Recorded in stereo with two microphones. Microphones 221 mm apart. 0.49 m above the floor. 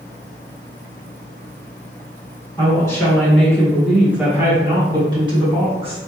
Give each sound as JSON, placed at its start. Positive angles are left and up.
{"t": 2.6, "sound": "a woman speaking", "side_deg": 15, "distance_m": 1.3}